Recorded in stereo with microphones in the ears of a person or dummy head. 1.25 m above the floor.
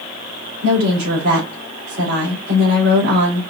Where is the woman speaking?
65° right (ahead or behind), 3 m.